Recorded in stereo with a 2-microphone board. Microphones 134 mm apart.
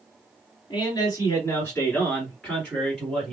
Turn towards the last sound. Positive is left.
turn(degrees=-10)  # may be behind; listen again after turning